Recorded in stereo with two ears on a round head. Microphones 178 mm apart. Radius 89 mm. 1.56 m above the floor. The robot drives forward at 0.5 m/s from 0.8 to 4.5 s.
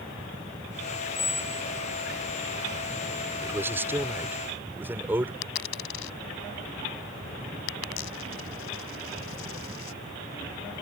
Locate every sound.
1.1 s a squeak: 15° left (ahead or behind)
3.4 s a man speaking: 10° right (ahead or behind)
5.4 s a dropped coin: 70° left (ahead or behind)